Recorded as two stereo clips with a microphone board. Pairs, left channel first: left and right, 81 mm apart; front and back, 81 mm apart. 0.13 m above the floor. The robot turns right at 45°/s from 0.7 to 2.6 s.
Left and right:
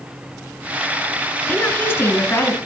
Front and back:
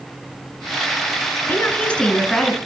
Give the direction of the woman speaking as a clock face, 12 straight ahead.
11 o'clock.